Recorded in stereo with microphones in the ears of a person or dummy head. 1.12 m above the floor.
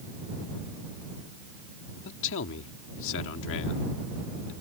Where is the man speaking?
70° left (ahead or behind).